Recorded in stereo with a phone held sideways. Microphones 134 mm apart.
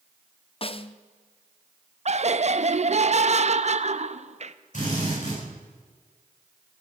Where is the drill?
65° left (ahead or behind), 7 m.